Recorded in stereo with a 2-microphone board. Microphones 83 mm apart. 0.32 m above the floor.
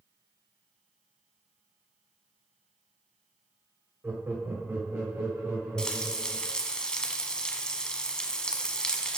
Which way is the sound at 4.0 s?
25° right (ahead or behind).